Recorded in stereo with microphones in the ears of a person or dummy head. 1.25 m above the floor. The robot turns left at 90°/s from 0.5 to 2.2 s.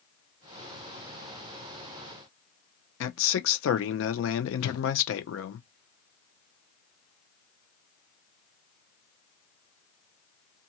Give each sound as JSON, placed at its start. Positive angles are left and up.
{"t": 3.0, "sound": "a man speaking", "side_deg": 70, "distance_m": 0.8}
{"t": 4.6, "sound": "a whoosh", "side_deg": 70, "distance_m": 0.7}